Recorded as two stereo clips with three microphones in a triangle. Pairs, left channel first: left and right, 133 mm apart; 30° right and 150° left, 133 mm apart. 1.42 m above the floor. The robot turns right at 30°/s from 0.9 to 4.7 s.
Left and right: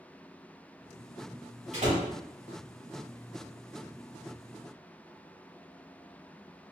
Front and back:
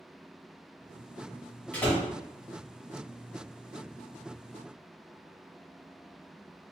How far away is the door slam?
About 1.3 m.